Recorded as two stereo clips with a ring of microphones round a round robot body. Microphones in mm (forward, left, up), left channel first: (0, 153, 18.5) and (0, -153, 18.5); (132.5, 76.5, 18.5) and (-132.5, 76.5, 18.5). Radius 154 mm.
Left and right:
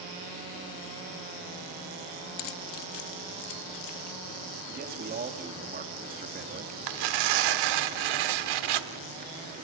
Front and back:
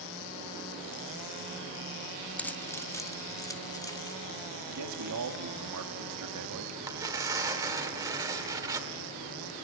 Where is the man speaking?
150° right, 1.8 m.